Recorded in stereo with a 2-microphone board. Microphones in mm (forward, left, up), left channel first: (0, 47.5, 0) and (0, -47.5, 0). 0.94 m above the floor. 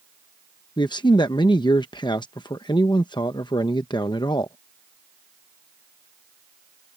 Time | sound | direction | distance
0.8 | a man speaking | 50° left (ahead or behind) | ?